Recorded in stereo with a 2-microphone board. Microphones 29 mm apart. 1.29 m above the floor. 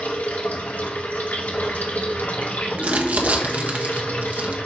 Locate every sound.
0.0 s running water: 75° left (ahead or behind), 1.9 m
2.8 s crumpling: 60° right (ahead or behind), 1.2 m